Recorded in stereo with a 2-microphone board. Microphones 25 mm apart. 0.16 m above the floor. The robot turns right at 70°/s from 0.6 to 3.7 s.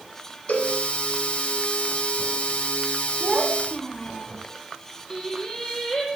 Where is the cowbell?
65° left (ahead or behind), 3.5 m; by 0.8 s 60° left (ahead or behind), 3.5 m.